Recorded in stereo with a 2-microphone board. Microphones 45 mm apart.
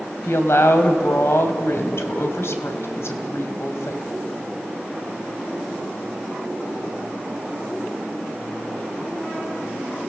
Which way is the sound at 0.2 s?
70° left (ahead or behind).